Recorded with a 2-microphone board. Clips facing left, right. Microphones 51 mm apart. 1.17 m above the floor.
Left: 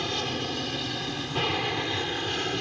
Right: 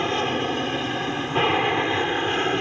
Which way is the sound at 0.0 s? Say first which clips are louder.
Right 7 dB; 30° right (ahead or behind).